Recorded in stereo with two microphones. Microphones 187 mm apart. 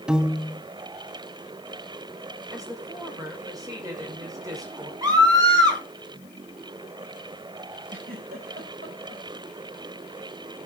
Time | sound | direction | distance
0.1 | a piano | 5° right (ahead or behind) | 0.8 m
2.5 | a woman speaking | 20° right (ahead or behind) | 4.5 m
5.0 | a scream | 20° right (ahead or behind) | 4.5 m
7.9 | a giggle | 50° right (ahead or behind) | 6 m